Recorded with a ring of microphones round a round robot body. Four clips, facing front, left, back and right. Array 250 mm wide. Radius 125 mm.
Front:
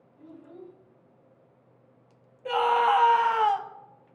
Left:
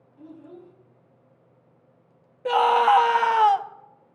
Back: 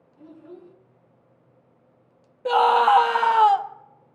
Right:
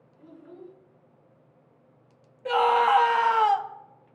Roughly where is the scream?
Behind left.